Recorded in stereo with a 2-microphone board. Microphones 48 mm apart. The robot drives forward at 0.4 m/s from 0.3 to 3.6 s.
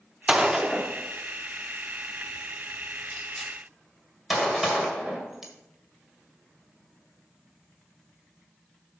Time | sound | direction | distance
0.3 | a gunshot | 15° right (ahead or behind) | 0.6 m